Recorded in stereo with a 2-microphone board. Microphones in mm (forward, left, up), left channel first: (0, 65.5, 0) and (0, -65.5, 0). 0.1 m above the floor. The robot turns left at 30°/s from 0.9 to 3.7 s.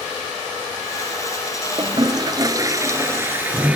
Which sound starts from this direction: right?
A toilet flushing, at 1.8 s.